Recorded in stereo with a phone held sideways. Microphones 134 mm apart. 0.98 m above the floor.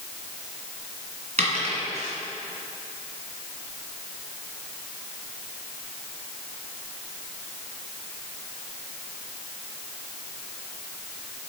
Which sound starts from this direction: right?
A dropped coin, at 1.4 s.